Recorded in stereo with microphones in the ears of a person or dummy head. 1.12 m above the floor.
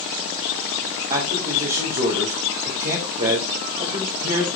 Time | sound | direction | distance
1.1 | a man speaking | 40° right (ahead or behind) | 2 m